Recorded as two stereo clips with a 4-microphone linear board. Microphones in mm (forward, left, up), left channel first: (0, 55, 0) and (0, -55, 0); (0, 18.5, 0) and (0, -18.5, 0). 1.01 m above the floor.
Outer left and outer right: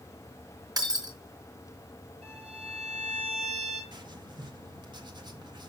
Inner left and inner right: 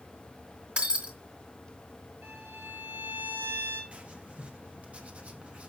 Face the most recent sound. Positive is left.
turn(degrees=-40)  # may be behind; listen again after turning